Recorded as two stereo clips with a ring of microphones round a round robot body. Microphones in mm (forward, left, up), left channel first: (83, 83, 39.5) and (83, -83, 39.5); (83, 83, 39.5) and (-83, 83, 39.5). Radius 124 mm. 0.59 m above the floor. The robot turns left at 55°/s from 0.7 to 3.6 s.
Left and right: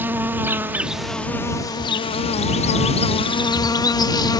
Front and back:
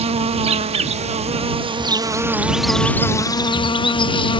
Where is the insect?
160° right; by 4.4 s 40° left.